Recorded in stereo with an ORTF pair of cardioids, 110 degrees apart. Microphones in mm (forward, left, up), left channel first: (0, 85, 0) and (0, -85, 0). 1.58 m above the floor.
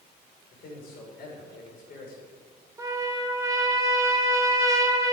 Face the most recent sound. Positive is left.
turn(degrees=-20)